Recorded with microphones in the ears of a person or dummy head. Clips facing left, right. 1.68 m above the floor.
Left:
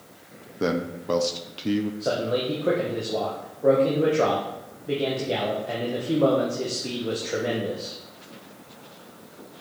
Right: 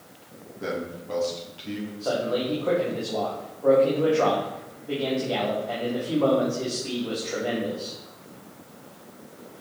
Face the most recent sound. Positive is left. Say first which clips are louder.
# left 1 dB
turn(degrees=20)  # may be behind; listen again after turning